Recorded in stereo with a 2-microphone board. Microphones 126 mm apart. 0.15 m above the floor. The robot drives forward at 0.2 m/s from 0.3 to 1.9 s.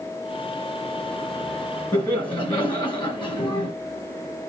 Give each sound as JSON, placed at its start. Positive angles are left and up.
{"t": 1.9, "sound": "laughter", "side_deg": 35, "distance_m": 2.0}